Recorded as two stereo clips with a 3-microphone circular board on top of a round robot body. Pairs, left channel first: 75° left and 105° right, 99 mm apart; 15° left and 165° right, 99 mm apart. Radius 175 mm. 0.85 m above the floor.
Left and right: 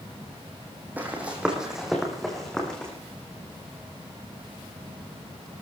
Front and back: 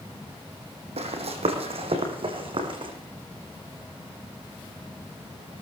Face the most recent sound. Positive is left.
turn(degrees=155)